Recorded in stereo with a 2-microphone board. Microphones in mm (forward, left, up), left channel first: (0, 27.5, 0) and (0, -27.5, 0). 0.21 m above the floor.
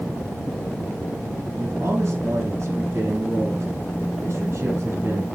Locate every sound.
1.6 s a man speaking: 50° right (ahead or behind), 5 m